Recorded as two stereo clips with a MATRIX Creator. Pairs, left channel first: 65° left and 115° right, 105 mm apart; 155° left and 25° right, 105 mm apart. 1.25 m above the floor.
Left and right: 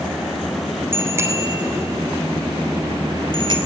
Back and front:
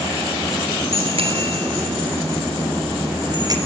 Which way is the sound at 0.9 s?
45° right.